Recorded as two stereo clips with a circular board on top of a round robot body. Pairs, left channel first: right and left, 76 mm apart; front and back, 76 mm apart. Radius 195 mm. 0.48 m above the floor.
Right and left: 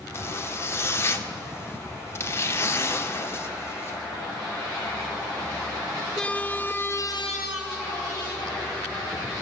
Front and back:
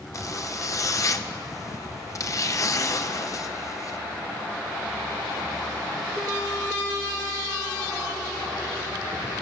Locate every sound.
0.1 s a zipper: 40° right, 2.0 m